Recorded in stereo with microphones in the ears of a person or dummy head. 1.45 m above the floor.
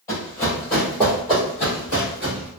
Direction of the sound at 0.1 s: 15° left (ahead or behind).